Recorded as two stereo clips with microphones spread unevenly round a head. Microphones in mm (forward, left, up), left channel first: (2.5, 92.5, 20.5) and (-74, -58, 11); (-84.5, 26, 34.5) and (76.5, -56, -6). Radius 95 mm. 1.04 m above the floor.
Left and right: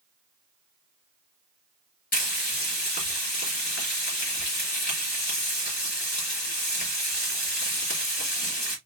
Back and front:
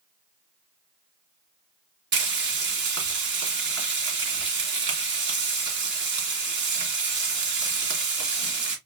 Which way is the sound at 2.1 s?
15° left.